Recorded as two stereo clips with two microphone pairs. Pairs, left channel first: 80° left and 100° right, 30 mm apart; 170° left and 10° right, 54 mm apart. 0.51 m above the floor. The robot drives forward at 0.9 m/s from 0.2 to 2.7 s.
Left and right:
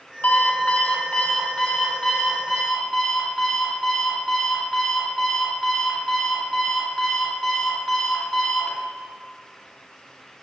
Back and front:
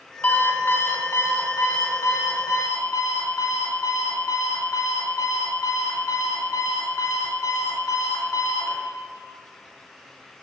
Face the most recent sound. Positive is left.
turn(degrees=160)